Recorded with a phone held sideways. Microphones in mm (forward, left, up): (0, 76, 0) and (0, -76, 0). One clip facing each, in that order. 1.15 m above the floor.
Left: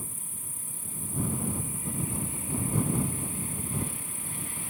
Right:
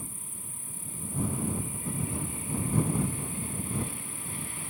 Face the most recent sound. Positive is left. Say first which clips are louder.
# even
turn(degrees=80)